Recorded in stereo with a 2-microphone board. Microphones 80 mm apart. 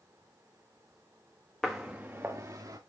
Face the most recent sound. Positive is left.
turn(degrees=-40)  # may be behind; listen again after turning